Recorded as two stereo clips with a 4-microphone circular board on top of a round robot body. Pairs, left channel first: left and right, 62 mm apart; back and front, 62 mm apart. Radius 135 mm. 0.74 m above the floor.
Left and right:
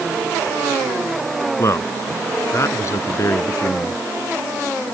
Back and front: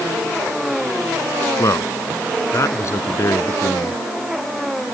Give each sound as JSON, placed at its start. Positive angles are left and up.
{"t": 1.6, "sound": "a man speaking", "azimuth_deg": 135}